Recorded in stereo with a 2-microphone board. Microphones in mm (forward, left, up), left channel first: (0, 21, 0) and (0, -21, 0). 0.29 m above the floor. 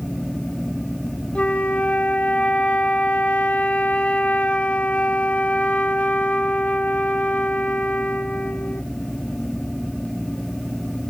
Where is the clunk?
I don't hear a clunk.